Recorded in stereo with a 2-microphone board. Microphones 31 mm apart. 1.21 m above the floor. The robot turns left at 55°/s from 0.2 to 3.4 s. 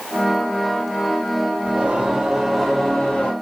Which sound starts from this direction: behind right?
Singing, at 1.6 s.